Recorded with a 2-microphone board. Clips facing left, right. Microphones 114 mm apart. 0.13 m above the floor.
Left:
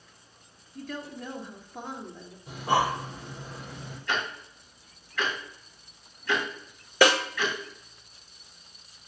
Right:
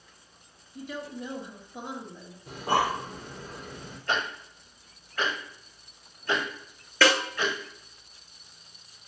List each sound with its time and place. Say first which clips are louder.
0.8 s a woman speaking: right 1 dB; 15° right (ahead or behind), 2.5 m
2.5 s breathing: left 1 dB; 50° right (ahead or behind), 5 m
4.1 s ticking: right 2 dB; 45° right (ahead or behind), 3 m
7.0 s a snare drum: left 2 dB; 15° left (ahead or behind), 1.3 m